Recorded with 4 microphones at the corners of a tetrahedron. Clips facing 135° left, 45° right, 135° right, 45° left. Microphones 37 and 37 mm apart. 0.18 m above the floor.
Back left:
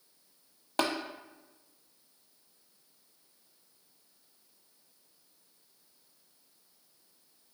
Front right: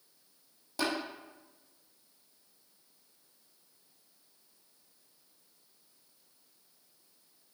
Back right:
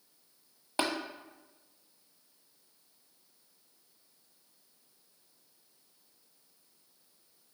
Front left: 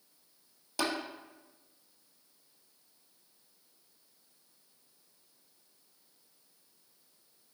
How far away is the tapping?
About 0.8 m.